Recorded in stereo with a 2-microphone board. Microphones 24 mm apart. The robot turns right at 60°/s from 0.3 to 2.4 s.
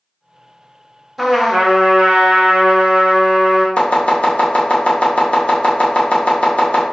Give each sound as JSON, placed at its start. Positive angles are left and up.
{"t": 1.2, "sound": "a trumpet", "azimuth_deg": 180, "distance_m": 0.6}
{"t": 3.8, "sound": "chopping", "side_deg": 50, "distance_m": 0.7}